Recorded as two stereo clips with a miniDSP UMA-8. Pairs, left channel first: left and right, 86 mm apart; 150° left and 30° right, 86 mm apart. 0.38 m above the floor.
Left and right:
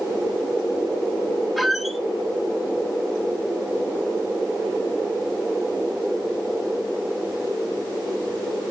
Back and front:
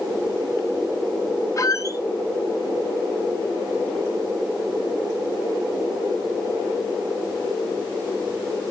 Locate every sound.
1.6 s a squeak: straight behind, 0.7 m